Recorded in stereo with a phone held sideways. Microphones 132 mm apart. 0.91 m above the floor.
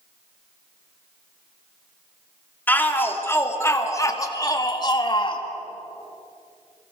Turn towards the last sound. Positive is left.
turn(degrees=40)  # may be behind; listen again after turning